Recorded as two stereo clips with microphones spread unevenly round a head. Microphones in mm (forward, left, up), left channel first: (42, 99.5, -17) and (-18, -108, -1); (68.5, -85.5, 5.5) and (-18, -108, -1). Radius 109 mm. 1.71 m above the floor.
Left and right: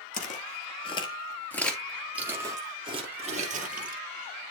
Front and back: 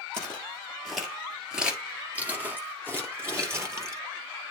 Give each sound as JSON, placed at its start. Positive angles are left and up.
{"t": 0.1, "sound": "footsteps", "azimuth_deg": 80, "distance_m": 1.9}